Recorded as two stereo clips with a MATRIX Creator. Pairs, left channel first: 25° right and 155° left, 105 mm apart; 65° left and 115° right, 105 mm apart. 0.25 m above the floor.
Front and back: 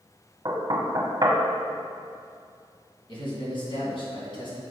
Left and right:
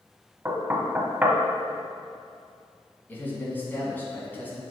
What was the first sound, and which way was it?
Knocking, 170° right.